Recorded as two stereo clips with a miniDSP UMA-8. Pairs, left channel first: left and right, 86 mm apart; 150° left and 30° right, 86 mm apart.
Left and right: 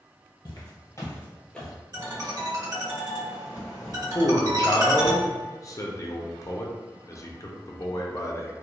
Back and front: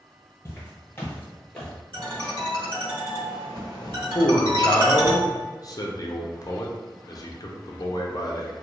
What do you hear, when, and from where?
0.5 s footsteps: 100° left, 1.9 m; by 1.7 s 175° left, 1.1 m
1.9 s a ringtone: 45° right, 1.3 m
4.2 s a man speaking: 125° left, 0.5 m